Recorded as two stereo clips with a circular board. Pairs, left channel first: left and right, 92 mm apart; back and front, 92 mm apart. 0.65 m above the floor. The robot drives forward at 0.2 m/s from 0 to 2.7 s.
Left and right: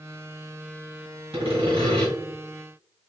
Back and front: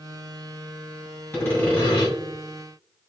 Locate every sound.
1.3 s sawing: 110° right, 1.7 m; by 2.1 s 115° right, 1.7 m